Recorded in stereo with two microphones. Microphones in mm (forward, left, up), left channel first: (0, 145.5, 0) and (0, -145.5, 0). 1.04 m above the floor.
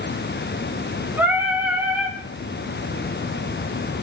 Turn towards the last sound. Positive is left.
turn(degrees=-5)  # may be behind; listen again after turning